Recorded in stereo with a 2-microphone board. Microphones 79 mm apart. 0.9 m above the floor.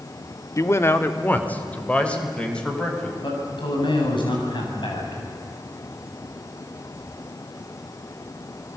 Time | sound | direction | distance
0.6 | a man speaking | 40° left (ahead or behind) | 1.4 m
3.2 | a man speaking | 85° left | 7.5 m